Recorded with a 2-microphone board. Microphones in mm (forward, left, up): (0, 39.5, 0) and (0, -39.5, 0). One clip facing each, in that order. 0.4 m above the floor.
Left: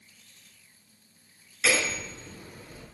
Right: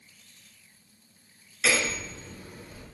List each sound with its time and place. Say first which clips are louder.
1.6 s hammering: even; centre (ahead or behind), 5 m